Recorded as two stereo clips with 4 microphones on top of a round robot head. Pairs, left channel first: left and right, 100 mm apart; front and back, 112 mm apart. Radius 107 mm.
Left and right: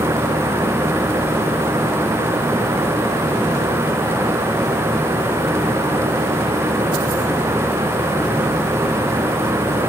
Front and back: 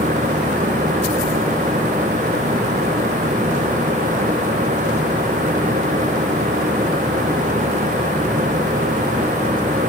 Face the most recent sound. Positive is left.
No sound to turn to.